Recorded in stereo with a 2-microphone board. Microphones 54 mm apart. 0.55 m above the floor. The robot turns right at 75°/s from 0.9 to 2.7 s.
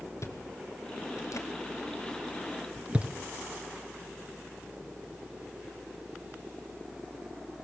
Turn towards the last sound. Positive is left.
turn(degrees=-25)  # may be behind; listen again after turning